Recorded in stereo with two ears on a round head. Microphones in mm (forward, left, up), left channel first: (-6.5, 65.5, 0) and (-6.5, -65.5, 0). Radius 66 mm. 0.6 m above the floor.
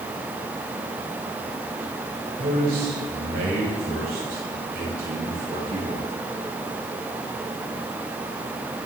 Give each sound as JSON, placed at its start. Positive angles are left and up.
{"t": 2.4, "sound": "a man speaking", "side_deg": -65, "distance_m": 2.5}